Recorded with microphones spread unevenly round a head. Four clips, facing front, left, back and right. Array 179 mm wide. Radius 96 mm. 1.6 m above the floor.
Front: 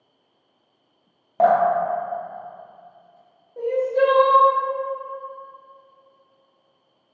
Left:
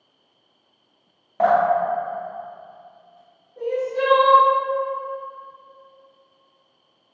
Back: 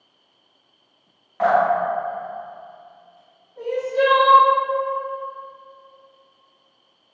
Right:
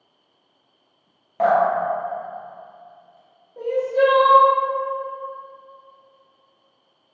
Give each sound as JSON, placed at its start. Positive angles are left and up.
{"t": 1.4, "sound": "dripping", "azimuth_deg": 5, "distance_m": 0.6}
{"t": 3.6, "sound": "crying", "azimuth_deg": -30, "distance_m": 1.0}